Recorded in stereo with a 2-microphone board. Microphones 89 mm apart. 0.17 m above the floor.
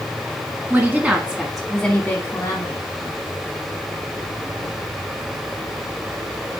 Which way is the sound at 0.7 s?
25° right (ahead or behind).